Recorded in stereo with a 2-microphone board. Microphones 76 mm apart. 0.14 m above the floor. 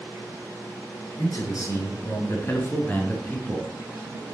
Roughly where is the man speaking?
Left.